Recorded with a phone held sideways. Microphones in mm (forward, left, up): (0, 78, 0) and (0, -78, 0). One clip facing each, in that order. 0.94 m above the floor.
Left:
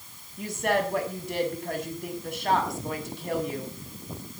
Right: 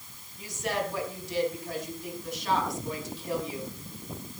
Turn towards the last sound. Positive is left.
turn(degrees=60)  # may be behind; listen again after turning